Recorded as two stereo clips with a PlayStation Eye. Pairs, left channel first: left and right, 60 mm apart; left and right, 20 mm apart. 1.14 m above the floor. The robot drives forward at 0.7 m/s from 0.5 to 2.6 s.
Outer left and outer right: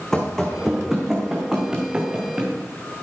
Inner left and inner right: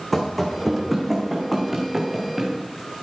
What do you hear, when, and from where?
0.1 s running footsteps: 10° left (ahead or behind), 3 m; by 2.5 s 20° right (ahead or behind), 4 m